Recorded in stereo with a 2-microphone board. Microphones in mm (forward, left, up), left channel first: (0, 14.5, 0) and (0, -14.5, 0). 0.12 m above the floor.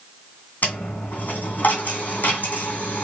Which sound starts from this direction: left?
A dropped coin, at 0.6 s.